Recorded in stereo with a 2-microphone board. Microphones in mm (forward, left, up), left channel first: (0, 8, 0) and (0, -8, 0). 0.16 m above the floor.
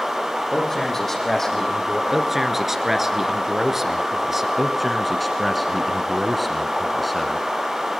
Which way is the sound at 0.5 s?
15° left (ahead or behind).